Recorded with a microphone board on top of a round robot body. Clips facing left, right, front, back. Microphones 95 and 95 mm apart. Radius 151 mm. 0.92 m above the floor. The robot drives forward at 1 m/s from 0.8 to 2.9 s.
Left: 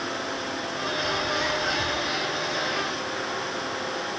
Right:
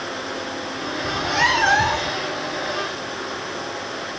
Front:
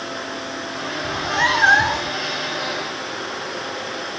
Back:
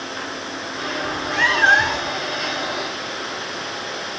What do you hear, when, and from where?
1.0 s a cat meowing: 65° right; by 2.2 s 80° right